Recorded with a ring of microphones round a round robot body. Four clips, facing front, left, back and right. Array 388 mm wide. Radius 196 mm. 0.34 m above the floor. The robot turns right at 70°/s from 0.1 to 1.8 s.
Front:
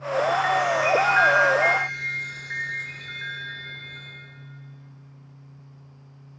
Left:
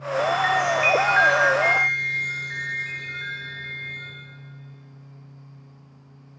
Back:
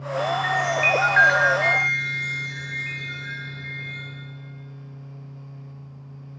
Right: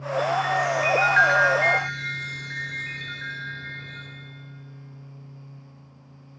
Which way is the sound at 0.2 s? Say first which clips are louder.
Left 2 dB, front 2 dB; 105° left.